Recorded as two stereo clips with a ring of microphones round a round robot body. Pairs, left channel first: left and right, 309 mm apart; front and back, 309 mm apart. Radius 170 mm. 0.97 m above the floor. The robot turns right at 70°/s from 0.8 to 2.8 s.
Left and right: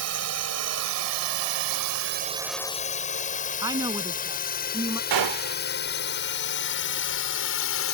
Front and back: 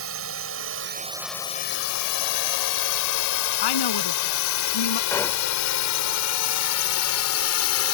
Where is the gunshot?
80° right.